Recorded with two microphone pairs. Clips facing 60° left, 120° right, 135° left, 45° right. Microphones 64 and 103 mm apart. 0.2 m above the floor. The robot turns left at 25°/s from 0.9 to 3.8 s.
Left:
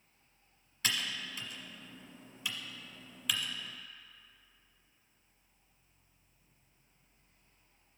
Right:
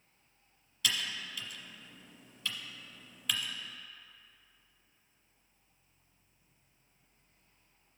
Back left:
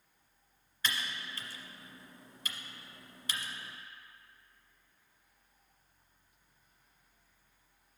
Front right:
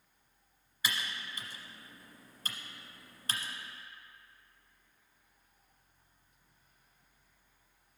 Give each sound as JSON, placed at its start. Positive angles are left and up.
{"t": 0.8, "sound": "typing on a keyboard", "azimuth_deg": 30, "distance_m": 0.8}